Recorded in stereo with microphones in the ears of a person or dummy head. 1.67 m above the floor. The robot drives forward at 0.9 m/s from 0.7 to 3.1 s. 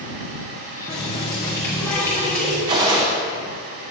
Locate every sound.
0.9 s a running tap: 15° left (ahead or behind), 0.9 m; by 2.6 s 10° left (ahead or behind), 1.5 m
2.7 s a gunshot: 20° right (ahead or behind), 0.7 m; by 3.1 s 15° right (ahead or behind), 0.9 m